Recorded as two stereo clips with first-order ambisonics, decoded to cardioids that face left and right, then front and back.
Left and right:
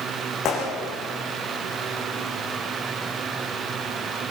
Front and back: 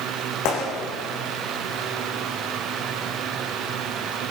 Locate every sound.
0.5 s a gunshot: 30° left, 8 m